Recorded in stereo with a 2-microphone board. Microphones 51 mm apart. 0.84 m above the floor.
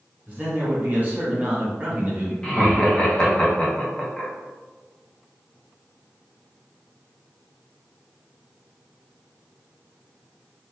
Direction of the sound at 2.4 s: 15° left (ahead or behind).